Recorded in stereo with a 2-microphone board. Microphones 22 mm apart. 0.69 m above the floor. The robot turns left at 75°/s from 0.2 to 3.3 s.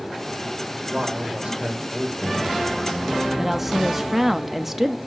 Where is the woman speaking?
5° right (ahead or behind), 0.9 m.